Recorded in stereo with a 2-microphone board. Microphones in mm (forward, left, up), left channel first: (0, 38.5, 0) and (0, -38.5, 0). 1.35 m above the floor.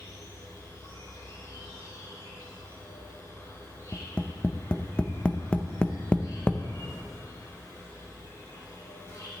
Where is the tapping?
15° left (ahead or behind), 0.6 m.